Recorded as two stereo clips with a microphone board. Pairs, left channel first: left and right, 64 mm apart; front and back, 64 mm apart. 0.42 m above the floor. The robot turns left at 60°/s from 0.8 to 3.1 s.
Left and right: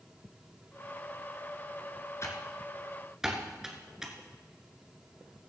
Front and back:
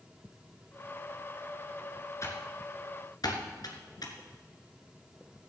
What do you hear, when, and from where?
2.2 s typing on a keyboard: 45° left, 2 m; by 4.1 s 10° right, 2 m